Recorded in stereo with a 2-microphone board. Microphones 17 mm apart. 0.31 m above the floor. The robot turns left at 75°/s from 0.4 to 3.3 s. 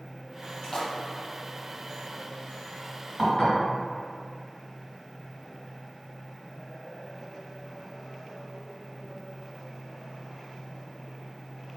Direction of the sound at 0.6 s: 40° left (ahead or behind).